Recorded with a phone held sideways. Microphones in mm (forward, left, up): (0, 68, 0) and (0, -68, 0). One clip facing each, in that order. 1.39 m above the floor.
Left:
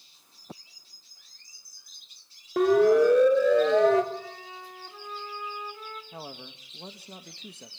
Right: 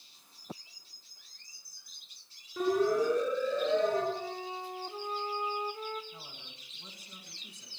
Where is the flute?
30° right (ahead or behind), 1.7 m.